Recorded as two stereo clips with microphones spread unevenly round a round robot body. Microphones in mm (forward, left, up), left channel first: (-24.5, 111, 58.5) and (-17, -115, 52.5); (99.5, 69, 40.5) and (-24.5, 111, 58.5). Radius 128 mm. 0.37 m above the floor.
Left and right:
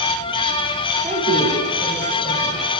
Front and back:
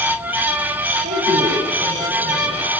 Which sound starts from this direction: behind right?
A woman speaking, at 1.0 s.